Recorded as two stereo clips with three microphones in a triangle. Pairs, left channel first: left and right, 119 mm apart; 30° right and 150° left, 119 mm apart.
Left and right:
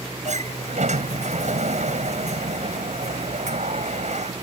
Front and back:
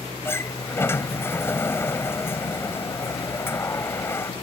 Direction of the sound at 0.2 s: 100° right.